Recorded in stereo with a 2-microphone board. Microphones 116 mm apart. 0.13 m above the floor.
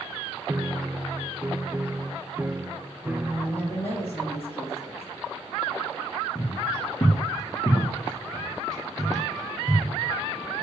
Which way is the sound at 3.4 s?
20° left (ahead or behind).